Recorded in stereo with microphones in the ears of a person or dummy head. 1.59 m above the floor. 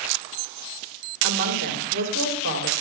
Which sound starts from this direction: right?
A woman speaking, at 1.2 s.